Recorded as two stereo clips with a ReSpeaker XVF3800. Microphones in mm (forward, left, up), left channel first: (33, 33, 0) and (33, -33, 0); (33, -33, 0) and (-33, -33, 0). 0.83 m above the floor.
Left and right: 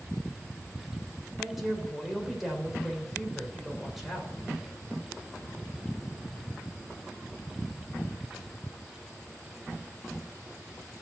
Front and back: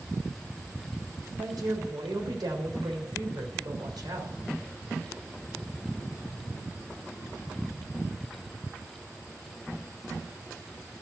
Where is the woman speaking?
175° right, 3.5 m.